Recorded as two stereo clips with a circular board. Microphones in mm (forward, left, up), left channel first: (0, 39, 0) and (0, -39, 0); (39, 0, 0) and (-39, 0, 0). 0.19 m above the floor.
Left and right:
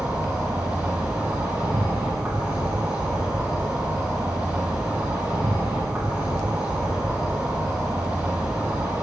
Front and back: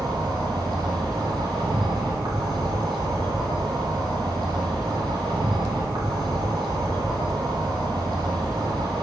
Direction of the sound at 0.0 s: 165° right.